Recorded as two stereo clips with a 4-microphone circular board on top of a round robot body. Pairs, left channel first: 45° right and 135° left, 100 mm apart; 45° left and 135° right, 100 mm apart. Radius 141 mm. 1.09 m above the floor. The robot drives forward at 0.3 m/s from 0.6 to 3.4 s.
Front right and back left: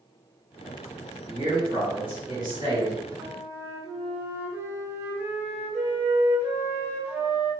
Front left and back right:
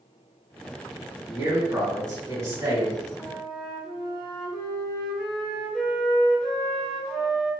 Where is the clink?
No clink in this recording.